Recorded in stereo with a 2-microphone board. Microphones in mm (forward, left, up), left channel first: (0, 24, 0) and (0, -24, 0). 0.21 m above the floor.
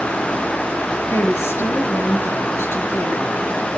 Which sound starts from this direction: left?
A woman speaking, at 1.1 s.